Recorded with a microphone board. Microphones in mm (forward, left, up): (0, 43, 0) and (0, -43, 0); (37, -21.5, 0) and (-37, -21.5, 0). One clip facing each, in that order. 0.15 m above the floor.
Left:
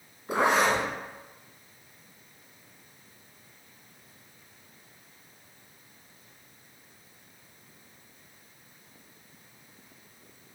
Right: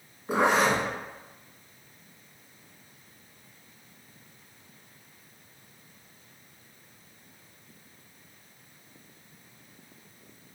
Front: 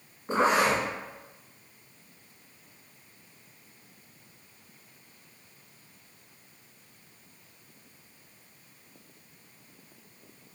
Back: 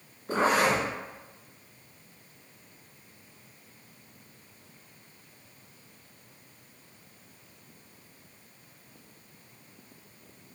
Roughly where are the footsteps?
I don't hear footsteps.